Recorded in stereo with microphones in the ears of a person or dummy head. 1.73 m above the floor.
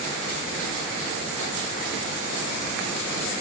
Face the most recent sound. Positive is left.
No sound to turn to.